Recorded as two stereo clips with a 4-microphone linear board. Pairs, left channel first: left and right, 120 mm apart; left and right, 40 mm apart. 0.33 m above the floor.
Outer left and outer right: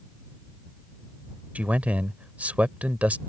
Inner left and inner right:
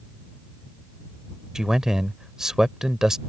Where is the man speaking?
10° right (ahead or behind).